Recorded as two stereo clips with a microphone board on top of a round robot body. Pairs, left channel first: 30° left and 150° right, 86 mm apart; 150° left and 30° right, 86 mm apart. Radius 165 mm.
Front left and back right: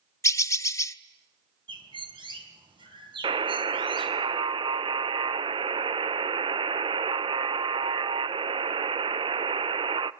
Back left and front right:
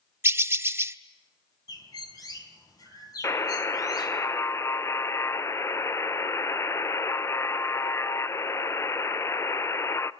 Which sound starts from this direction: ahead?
A bird, at 0.2 s.